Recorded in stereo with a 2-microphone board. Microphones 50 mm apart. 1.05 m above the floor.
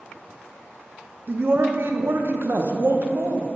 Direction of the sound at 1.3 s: 50° right (ahead or behind).